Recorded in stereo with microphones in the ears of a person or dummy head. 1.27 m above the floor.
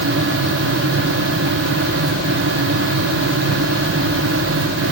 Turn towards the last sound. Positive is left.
No sound to turn to.